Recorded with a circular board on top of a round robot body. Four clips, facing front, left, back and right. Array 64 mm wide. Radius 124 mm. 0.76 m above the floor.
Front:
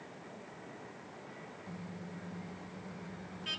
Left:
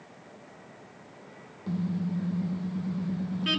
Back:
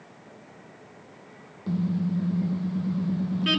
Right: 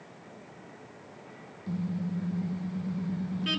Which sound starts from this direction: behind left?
A car horn, at 1.7 s.